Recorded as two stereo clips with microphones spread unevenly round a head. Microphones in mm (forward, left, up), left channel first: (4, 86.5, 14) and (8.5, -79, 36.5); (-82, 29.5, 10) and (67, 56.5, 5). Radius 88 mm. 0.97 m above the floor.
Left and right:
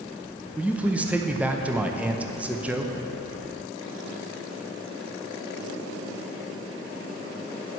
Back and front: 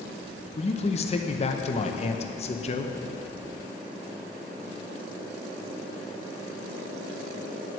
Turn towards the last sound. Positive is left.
turn(degrees=-175)